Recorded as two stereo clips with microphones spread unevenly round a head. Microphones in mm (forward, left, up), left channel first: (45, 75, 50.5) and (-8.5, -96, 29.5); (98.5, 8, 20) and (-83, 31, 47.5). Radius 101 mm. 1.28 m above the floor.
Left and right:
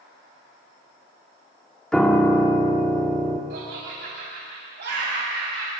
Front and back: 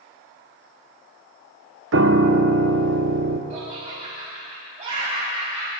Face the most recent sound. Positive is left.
turn(degrees=-130)